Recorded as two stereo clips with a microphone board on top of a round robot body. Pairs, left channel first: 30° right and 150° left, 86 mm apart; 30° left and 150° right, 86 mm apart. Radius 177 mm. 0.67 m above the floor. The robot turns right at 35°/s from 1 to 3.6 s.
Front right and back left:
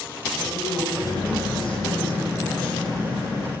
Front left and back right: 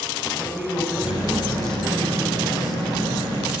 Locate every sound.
0.4 s a woman speaking: 75° right, 6 m; by 3.5 s 10° left, 6 m